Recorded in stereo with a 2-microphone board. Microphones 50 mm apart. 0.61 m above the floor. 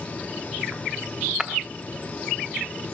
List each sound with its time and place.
1.4 s breaking glass: 15° right (ahead or behind), 0.7 m